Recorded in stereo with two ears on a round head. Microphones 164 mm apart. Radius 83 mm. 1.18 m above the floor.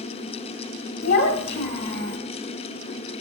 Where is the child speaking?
70° left (ahead or behind), 1.7 m.